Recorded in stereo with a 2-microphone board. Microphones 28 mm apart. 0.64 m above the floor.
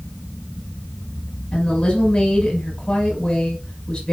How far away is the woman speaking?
About 4.5 m.